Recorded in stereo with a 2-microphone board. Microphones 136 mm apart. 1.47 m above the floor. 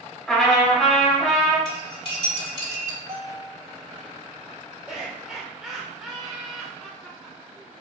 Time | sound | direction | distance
0.3 | a trumpet | 5° left (ahead or behind) | 1.5 m
1.6 | cutlery clinking | 40° left (ahead or behind) | 1.8 m
3.1 | a bell | 75° right (ahead or behind) | 1.0 m
4.9 | laughter | 5° right (ahead or behind) | 0.5 m